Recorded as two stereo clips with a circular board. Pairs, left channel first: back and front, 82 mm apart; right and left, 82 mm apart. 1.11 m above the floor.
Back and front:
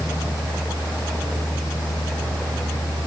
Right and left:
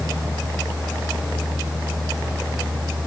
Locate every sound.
Only background noise.